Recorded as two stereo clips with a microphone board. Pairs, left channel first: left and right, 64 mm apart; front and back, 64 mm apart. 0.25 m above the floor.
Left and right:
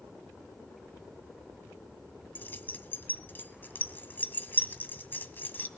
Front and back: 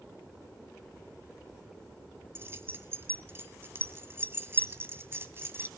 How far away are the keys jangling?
About 1.4 m.